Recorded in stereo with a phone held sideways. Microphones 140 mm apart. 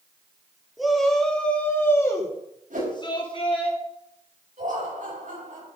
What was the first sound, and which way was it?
A shout, centre (ahead or behind).